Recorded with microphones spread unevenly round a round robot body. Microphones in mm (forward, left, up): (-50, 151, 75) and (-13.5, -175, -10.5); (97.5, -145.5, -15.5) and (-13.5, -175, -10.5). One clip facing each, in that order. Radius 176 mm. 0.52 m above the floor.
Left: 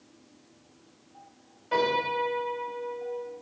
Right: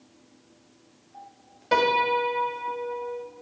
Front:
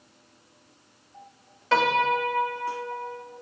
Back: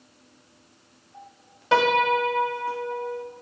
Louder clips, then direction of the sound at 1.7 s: Right 3 dB, back 2 dB; 95° right.